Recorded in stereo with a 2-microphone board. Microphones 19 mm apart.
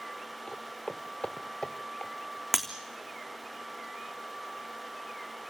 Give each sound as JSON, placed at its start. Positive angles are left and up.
{"t": 0.5, "sound": "footsteps", "side_deg": 80, "distance_m": 1.5}
{"t": 2.5, "sound": "breaking glass", "side_deg": -5, "distance_m": 3.0}